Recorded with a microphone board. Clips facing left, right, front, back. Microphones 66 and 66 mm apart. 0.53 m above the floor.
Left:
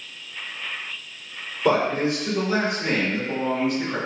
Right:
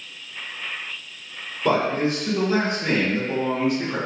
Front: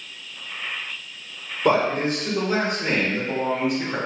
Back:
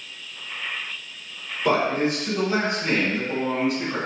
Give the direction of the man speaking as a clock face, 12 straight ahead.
11 o'clock.